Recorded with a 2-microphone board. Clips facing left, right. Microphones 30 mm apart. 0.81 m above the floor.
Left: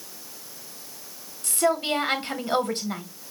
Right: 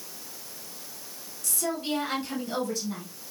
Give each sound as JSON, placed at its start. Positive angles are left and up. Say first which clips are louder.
{"t": 1.4, "sound": "a woman speaking", "louder": "left 7 dB", "side_deg": 45, "distance_m": 1.0}